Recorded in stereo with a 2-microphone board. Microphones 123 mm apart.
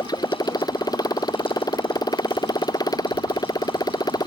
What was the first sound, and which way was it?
A motorcycle, 30° left (ahead or behind).